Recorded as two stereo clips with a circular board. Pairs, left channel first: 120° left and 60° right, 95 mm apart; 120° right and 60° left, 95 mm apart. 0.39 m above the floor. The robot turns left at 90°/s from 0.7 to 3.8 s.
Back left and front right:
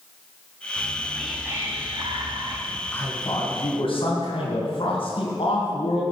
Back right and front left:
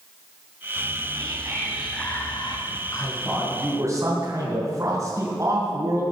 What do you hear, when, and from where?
0.8 s whispering: 70° left, 2.5 m; by 2.6 s 95° right, 2.5 m
2.7 s a man speaking: 145° right, 3 m; by 6.0 s 115° left, 3 m